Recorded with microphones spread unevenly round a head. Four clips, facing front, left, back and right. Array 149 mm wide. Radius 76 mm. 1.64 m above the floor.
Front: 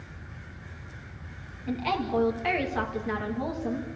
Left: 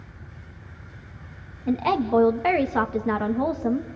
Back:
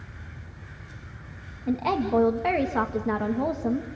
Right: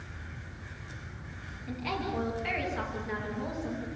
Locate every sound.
1.7 s a woman speaking: 115° left, 2 m